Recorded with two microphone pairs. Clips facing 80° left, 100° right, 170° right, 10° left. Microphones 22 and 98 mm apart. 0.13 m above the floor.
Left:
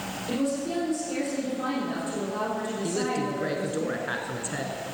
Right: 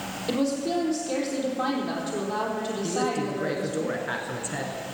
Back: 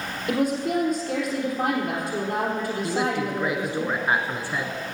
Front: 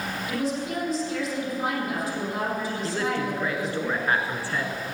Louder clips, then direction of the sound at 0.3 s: Right 2 dB, back 6 dB; 145° right.